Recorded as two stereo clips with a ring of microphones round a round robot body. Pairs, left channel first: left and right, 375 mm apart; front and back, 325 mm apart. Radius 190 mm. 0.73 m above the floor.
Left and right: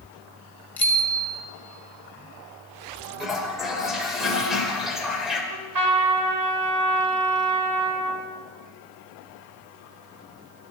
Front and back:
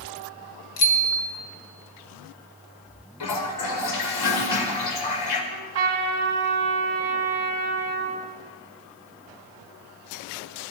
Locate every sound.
0.8 s a bicycle bell: 5° left, 2.5 m
3.2 s a toilet flushing: straight ahead, 2.5 m
5.5 s a trumpet: 125° right, 2.5 m